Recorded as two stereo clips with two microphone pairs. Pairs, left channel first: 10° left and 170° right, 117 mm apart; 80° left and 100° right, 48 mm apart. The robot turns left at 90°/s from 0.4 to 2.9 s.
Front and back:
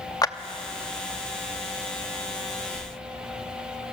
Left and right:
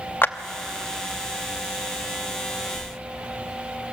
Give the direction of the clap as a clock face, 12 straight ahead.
10 o'clock.